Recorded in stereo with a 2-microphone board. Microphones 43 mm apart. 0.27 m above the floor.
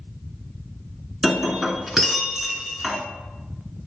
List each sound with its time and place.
1.2 s breaking glass: 10° right (ahead or behind), 1.2 m